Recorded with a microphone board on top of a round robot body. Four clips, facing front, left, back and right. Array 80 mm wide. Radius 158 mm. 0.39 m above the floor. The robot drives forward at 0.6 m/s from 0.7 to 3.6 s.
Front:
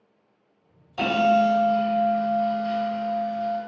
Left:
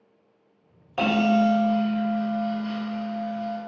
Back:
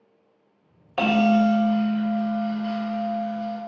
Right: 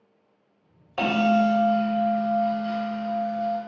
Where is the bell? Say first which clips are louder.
Even, even; 175° left, 1.8 m; by 3.6 s straight behind, 3 m.